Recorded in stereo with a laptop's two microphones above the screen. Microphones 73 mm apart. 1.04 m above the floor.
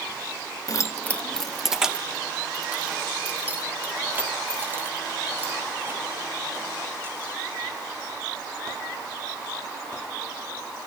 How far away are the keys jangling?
About 0.6 m.